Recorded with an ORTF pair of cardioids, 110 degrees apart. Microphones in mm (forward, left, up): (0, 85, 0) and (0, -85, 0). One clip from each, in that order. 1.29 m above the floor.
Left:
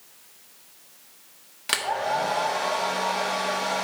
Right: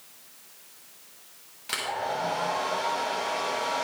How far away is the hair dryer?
About 1.4 m.